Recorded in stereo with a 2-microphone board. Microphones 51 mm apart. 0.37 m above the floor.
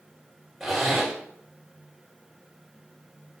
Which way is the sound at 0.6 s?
Centre (ahead or behind).